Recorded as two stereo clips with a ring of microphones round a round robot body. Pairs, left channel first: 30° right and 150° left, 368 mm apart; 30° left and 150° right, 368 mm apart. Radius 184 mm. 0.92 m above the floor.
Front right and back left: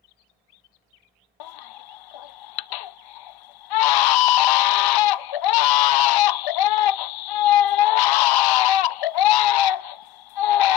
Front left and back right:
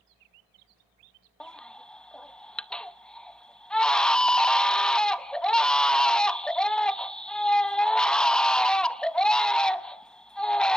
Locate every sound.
1.4 s a baby crying: 60° right, 0.6 m